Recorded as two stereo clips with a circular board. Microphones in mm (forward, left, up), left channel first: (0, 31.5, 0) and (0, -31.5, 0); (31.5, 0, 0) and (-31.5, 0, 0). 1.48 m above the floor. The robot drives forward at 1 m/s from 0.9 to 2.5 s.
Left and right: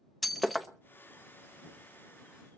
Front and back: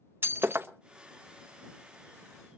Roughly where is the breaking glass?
Behind.